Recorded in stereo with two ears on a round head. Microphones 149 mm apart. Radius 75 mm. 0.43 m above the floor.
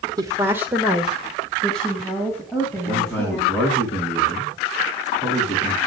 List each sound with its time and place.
0.2 s a woman speaking: 20° right (ahead or behind), 1.5 m; by 3.9 s 10° left (ahead or behind), 5.5 m
2.9 s a man speaking: 10° left (ahead or behind), 4 m